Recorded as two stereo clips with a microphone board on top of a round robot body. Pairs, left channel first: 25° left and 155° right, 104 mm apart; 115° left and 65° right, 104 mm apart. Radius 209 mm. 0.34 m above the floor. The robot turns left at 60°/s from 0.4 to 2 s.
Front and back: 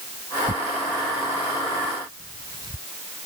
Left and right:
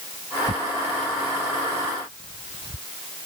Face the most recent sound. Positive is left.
turn(degrees=150)